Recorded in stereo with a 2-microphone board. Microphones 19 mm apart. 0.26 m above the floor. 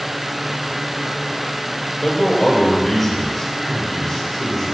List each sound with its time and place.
2.0 s a man speaking: 15° left (ahead or behind), 7.5 m